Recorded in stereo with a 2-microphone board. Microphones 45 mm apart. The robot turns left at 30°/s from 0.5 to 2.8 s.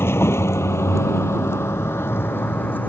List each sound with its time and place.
0.0 s a vehicle: 60° left (ahead or behind); by 2.9 s 45° left (ahead or behind)